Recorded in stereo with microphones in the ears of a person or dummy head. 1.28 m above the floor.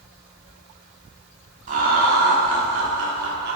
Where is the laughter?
40° right (ahead or behind), 0.9 m; by 3.6 s 55° right (ahead or behind), 1.1 m.